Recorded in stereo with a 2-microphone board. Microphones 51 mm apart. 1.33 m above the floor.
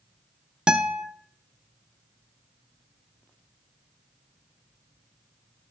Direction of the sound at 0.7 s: 15° right (ahead or behind).